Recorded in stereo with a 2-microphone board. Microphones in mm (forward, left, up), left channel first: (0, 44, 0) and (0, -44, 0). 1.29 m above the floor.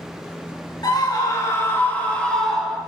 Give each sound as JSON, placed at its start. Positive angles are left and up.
{"t": 0.8, "sound": "a scream", "side_deg": 50, "distance_m": 2.5}